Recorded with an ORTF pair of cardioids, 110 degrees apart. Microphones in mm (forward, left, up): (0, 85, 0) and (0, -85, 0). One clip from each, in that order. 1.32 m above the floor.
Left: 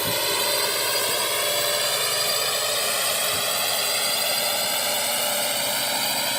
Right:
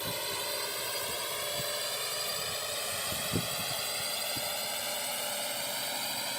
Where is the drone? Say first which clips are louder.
Left 11 dB; 65° left; by 6.4 s 60° left.